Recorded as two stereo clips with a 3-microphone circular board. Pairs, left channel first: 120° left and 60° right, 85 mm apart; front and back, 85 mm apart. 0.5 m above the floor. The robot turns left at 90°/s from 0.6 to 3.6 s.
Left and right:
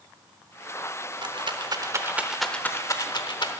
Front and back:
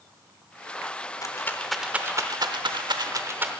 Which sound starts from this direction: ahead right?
A rattle, at 1.2 s.